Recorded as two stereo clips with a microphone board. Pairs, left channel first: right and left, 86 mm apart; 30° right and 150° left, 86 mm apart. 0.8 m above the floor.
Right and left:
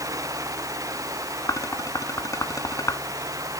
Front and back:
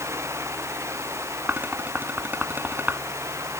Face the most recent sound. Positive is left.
turn(degrees=-140)